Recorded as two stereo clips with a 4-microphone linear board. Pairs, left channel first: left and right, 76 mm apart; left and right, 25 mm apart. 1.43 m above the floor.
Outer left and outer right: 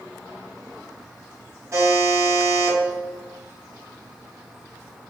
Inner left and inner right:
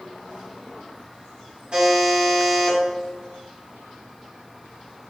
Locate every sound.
1.7 s a buzzer: 40° right (ahead or behind), 1.6 m